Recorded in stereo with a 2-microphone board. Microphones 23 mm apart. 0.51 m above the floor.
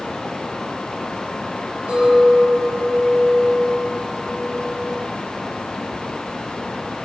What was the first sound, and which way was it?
A clink, 50° right (ahead or behind).